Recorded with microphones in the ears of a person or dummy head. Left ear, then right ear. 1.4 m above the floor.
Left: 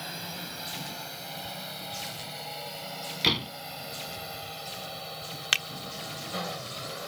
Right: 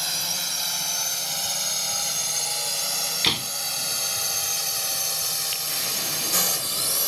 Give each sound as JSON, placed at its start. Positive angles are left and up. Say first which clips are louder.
{"t": 0.0, "sound": "a drone", "louder": "right 11 dB", "side_deg": -50}
{"t": 3.2, "sound": "a door slam", "louder": "right 1 dB", "side_deg": -20}
{"t": 5.5, "sound": "a finger snap", "louder": "left 5 dB", "side_deg": 45}